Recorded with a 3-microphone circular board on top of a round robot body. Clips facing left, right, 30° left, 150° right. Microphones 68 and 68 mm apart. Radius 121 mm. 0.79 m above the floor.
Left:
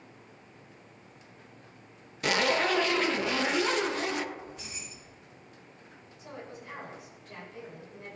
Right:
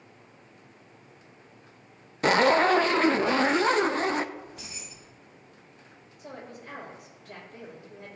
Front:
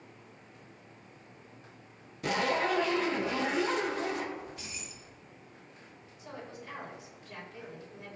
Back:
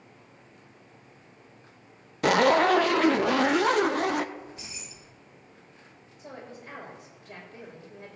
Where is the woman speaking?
115° right, 5 m.